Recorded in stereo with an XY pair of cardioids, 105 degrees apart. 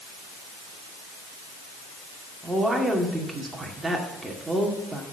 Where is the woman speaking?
15° right, 2 m.